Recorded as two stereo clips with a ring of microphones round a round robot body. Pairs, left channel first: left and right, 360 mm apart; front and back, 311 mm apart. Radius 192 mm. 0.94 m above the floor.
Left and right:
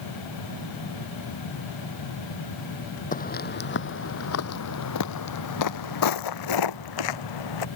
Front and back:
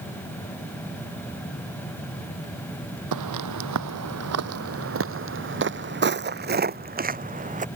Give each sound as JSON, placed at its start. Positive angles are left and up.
{"t": 3.1, "sound": "footsteps", "azimuth_deg": 160}